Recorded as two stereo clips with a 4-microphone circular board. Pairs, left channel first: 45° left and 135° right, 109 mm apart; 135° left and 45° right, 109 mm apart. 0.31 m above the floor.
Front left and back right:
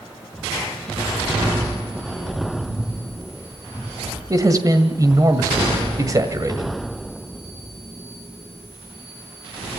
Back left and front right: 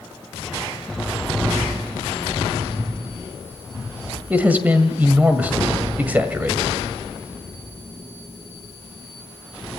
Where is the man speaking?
110° right, 1.8 m.